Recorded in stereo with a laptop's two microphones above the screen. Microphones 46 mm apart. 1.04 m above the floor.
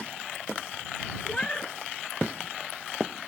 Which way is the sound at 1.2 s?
20° left (ahead or behind).